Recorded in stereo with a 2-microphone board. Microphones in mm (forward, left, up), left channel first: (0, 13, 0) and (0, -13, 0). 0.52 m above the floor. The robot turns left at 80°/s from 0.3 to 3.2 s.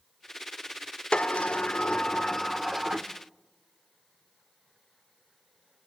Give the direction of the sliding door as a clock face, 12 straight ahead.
8 o'clock.